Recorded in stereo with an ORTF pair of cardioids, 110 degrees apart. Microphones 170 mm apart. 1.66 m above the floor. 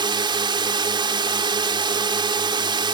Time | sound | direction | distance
0.0 | a drone | 25° right | ?